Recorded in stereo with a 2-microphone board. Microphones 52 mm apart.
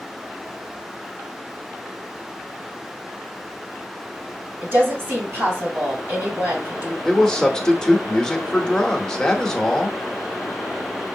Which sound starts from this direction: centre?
A man speaking, at 7.0 s.